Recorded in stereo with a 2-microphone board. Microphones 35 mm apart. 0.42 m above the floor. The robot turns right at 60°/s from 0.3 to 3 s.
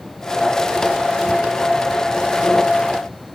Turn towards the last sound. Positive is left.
No sound to turn to.